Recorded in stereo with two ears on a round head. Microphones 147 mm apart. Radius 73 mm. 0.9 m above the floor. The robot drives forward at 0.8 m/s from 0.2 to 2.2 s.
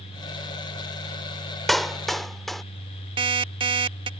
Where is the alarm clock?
30° right (ahead or behind).